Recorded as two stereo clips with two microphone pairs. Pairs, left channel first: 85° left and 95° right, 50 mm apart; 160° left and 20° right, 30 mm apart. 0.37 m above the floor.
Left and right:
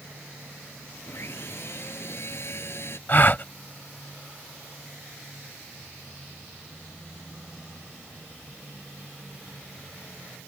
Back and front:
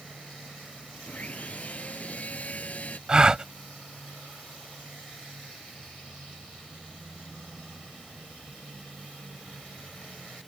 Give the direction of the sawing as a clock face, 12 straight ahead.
8 o'clock.